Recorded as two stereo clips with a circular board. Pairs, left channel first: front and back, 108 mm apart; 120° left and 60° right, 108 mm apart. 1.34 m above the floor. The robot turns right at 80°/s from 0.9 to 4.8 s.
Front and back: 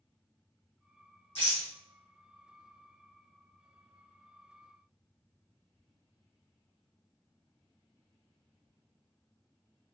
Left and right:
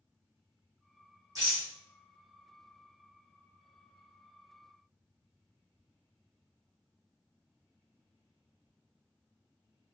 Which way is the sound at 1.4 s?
5° right.